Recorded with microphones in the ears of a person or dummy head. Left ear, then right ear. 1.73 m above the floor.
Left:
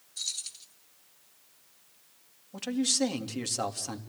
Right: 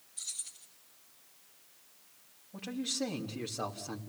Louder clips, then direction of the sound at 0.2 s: Left 8 dB; 45° left (ahead or behind).